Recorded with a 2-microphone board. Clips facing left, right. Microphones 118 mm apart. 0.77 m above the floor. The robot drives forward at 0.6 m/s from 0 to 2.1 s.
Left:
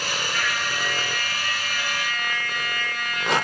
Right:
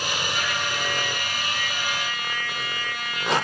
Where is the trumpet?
25° right (ahead or behind), 7.5 m.